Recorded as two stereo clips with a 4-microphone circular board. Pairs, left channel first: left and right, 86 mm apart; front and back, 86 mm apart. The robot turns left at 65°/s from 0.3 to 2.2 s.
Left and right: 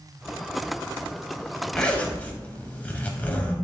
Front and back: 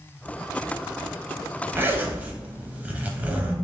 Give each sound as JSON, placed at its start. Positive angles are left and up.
{"t": 1.7, "sound": "a zipper", "azimuth_deg": 165, "distance_m": 0.6}